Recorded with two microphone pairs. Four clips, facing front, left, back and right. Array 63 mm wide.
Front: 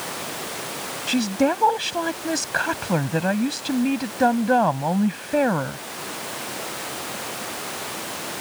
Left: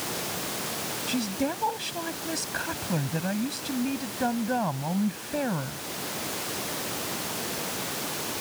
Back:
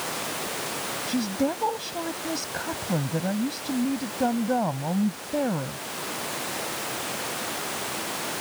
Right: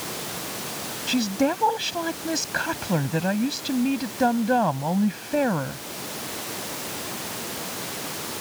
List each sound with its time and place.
1.1 s a woman speaking: 15° right